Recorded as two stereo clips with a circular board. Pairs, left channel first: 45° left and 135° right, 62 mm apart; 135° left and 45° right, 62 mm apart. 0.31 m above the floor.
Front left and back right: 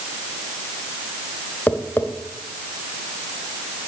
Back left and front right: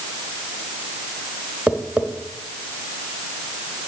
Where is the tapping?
10° left, 1.1 m.